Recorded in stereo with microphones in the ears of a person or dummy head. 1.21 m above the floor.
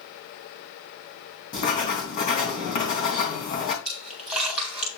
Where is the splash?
5° right (ahead or behind), 4 m.